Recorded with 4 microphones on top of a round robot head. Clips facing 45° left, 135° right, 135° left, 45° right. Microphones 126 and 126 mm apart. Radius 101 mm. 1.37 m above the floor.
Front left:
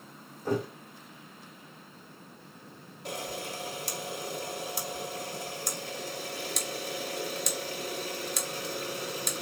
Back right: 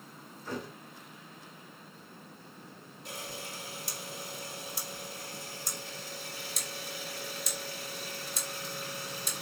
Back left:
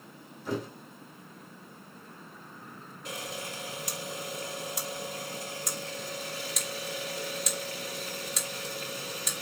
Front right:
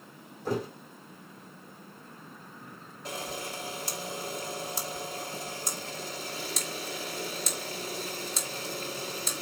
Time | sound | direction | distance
0.5 | a thud | 5° left | 2.5 m
3.0 | a camera shutter | 15° left | 2.5 m